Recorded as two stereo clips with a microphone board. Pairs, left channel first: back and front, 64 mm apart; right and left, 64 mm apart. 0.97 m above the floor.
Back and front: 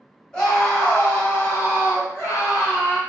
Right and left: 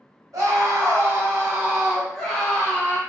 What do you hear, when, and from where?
0.3 s a scream: 105° left, 1.6 m; by 3.0 s 140° right, 1.2 m